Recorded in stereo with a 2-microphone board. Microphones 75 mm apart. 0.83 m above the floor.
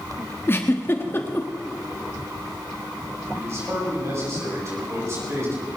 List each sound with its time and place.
0.5 s a giggle: 30° left (ahead or behind), 1.3 m
3.3 s a man speaking: 40° right (ahead or behind), 6 m